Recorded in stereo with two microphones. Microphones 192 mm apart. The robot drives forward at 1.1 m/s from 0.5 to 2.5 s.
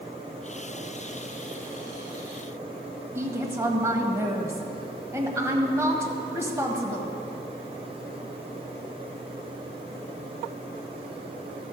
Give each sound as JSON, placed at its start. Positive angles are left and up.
{"t": 3.1, "sound": "a woman speaking", "side_deg": -15, "distance_m": 1.2}